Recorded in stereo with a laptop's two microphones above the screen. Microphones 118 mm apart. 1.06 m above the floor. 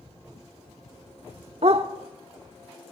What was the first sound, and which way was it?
A dog barking, 60° right (ahead or behind).